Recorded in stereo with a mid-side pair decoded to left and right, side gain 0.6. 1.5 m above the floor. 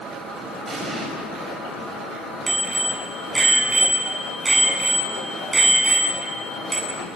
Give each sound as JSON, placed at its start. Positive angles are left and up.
{"t": 0.7, "sound": "an explosion", "azimuth_deg": -35, "distance_m": 7.0}
{"t": 2.5, "sound": "a bicycle bell", "azimuth_deg": -20, "distance_m": 9.0}